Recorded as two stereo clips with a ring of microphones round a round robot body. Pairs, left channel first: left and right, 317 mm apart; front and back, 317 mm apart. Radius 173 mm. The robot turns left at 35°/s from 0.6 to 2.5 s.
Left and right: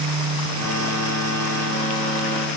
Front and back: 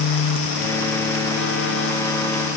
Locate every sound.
Only background noise.